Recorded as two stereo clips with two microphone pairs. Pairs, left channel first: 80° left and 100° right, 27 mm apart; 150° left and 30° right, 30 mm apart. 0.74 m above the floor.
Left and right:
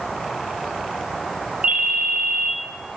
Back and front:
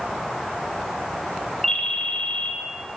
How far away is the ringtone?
About 0.8 m.